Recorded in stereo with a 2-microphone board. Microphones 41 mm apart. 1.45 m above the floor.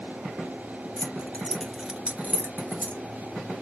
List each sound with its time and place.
1.0 s keys jangling: 45° left (ahead or behind), 0.9 m; by 3.0 s 55° right (ahead or behind), 1.5 m